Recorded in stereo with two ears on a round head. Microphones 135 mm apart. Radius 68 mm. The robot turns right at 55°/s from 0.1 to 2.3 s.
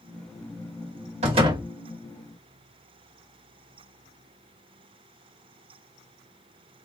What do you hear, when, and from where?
1.2 s a door slam: 45° right (ahead or behind), 1.7 m; by 1.7 s 20° right (ahead or behind), 1.7 m